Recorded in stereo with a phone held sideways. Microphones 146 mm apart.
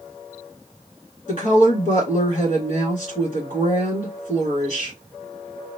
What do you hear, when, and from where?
1.3 s a woman speaking: 60° left (ahead or behind), 1.8 m